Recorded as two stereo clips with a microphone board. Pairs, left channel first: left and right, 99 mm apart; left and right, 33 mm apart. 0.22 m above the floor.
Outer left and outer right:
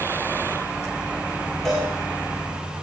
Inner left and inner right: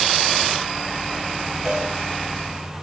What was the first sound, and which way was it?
A cowbell, 5° left (ahead or behind).